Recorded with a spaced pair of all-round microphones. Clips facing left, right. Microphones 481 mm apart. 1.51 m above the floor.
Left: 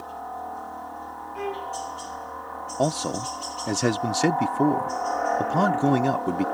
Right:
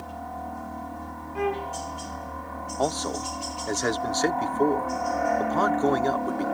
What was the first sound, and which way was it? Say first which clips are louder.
A helicopter: right 1 dB; 45° right (ahead or behind).